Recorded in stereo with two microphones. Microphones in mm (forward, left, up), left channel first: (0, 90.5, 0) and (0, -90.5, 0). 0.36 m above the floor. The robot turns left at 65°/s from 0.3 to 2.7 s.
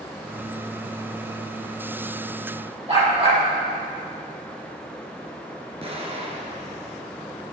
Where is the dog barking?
35° right (ahead or behind), 5 m.